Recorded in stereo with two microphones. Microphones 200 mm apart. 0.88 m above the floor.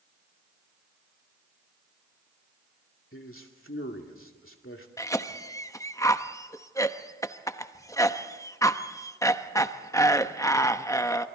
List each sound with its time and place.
3.1 s a man speaking: 75° left (ahead or behind), 2.5 m
5.0 s a cough: 15° left (ahead or behind), 1.0 m